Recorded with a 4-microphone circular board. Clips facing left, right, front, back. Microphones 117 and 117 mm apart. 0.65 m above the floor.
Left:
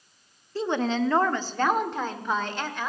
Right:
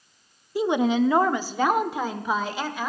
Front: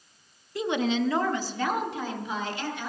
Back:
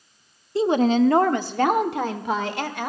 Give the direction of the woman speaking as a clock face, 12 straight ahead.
5 o'clock.